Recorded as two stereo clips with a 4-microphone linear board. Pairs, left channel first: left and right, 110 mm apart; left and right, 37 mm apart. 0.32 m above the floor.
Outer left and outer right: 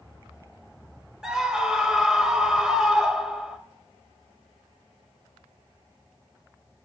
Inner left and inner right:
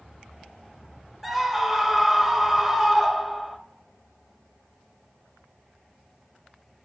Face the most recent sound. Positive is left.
turn(degrees=-5)  # may be behind; listen again after turning